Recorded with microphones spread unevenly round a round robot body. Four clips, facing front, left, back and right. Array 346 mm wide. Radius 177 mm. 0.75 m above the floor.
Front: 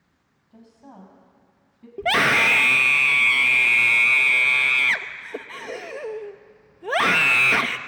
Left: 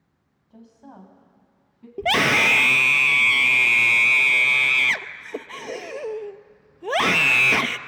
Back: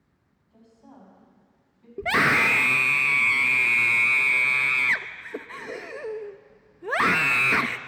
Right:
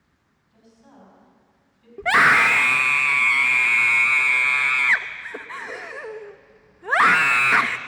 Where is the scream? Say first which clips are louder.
Right 4 dB, front 2 dB; 110° left, 0.6 m.